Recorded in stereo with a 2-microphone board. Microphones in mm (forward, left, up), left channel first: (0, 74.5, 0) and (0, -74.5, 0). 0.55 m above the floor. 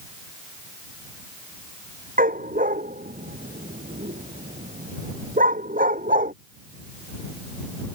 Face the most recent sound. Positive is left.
turn(degrees=-60)  # may be behind; listen again after turning